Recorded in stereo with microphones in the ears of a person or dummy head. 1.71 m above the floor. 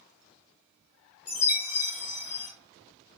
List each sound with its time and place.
1.3 s a chime: 35° left (ahead or behind), 0.6 m